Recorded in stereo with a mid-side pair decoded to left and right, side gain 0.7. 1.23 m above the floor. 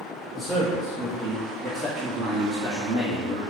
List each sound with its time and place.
0.3 s a man speaking: 5° left, 1.7 m; by 3.4 s 55° right, 2 m